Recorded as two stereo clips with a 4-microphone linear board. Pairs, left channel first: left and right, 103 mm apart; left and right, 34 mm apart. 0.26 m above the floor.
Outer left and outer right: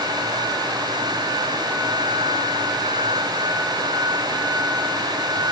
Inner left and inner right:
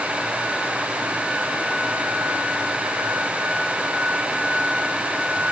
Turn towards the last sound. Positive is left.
No sound to turn to.